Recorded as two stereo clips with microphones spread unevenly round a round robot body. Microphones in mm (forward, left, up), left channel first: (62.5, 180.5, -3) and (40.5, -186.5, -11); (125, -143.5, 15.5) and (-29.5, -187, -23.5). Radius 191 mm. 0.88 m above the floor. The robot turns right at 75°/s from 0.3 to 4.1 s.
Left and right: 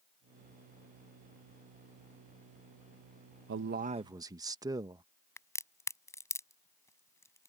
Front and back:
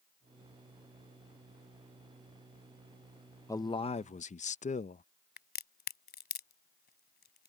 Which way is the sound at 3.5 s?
65° right.